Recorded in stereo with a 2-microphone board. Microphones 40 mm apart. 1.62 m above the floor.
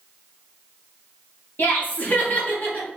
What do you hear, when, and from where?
1.6 s laughter: 50° left (ahead or behind), 1.3 m; by 2.9 s 40° left (ahead or behind), 1.8 m